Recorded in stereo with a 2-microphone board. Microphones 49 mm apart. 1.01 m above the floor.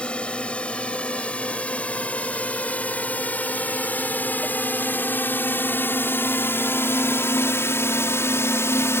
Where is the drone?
25° left (ahead or behind); by 9.0 s 60° left (ahead or behind).